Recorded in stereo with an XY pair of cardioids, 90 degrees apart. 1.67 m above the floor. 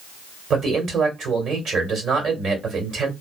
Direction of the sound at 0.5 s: 65° right.